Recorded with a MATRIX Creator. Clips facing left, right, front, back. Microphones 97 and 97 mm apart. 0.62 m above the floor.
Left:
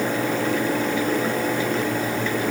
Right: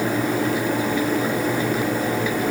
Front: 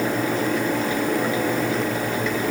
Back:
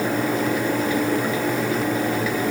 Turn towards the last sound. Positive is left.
No sound to turn to.